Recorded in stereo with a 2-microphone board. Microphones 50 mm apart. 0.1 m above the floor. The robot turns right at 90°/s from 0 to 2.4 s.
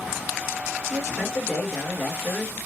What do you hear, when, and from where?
0.9 s a man speaking: 25° right, 1.9 m; by 2.6 s 110° left, 1.9 m